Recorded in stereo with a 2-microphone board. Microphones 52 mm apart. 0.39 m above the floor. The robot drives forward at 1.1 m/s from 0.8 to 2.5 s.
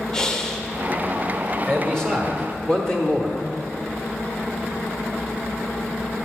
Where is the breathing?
10° left (ahead or behind), 0.7 m.